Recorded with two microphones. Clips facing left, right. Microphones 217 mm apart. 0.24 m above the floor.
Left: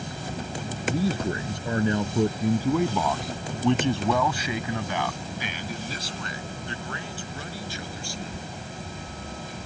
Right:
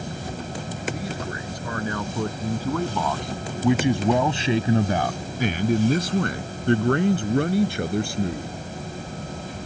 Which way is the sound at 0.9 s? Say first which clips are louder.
Left 8 dB; 30° left (ahead or behind).